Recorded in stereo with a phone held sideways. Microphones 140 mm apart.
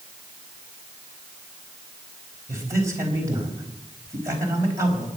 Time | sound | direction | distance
2.5 | a man speaking | 20° right (ahead or behind) | 4.5 m